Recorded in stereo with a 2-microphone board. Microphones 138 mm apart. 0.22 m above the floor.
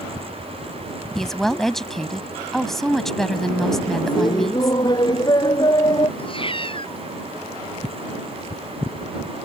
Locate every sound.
1.1 s a woman speaking: centre (ahead or behind)
4.1 s laughter: 30° left (ahead or behind)
6.2 s a cat meowing: 40° left (ahead or behind)